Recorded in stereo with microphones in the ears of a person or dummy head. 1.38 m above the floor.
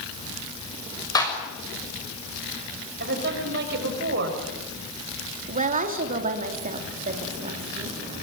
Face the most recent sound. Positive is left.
turn(degrees=-40)  # may be behind; listen again after turning